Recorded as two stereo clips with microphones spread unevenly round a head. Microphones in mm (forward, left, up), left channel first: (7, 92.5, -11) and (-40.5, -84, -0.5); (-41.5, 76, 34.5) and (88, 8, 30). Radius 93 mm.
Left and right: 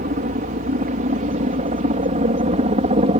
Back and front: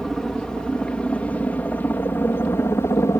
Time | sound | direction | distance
0.0 | a helicopter | 120° right | ?